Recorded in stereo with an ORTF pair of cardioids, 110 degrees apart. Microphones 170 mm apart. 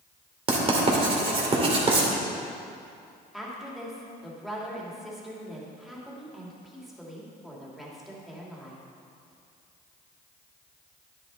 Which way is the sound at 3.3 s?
Straight ahead.